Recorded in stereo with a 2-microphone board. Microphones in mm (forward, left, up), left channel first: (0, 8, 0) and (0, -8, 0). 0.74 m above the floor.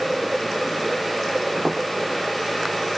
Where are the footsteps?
40° right (ahead or behind), 3 m.